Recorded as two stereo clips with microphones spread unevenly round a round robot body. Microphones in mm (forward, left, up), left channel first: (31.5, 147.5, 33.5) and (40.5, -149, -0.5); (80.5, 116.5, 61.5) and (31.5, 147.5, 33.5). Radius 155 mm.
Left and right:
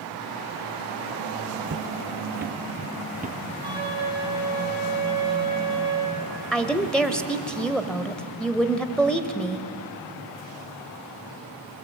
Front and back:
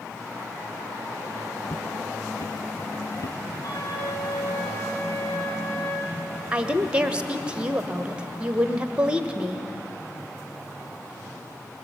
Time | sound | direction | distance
1.7 | footsteps | 35° right | 1.1 m
3.6 | a flute | 10° right | 8 m
6.5 | a woman speaking | 175° right | 1.2 m